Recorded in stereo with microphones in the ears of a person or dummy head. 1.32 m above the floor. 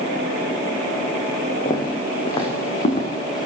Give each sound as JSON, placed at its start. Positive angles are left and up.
{"t": 1.6, "sound": "footsteps", "side_deg": 25, "distance_m": 5.0}